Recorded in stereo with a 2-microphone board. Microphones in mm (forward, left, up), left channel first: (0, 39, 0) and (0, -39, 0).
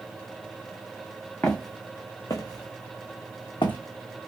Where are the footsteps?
25° left (ahead or behind), 1.2 m; by 3.8 s 80° left, 1.0 m.